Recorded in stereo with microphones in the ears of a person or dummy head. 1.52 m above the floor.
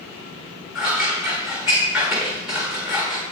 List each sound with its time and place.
0.8 s scissors: centre (ahead or behind), 1.2 m